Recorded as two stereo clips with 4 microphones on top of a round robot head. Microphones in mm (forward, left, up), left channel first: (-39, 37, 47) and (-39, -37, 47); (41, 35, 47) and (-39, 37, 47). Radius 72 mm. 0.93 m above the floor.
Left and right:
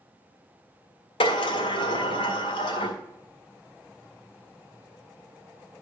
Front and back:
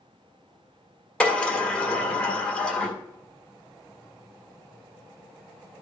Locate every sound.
1.2 s a sliding door: 80° left, 1.7 m